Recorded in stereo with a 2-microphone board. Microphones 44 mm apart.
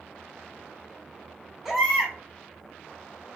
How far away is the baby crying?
About 0.8 m.